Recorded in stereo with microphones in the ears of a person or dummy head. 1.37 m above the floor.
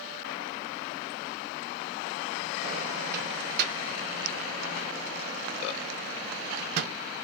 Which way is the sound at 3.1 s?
55° right (ahead or behind).